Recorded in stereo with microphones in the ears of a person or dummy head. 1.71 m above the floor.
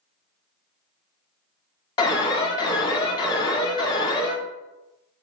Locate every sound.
2.0 s an alarm: 25° left (ahead or behind), 0.7 m